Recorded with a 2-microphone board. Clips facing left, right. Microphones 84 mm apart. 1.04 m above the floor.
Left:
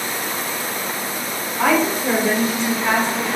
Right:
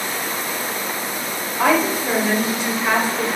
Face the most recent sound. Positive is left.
turn(degrees=-10)  # may be behind; listen again after turning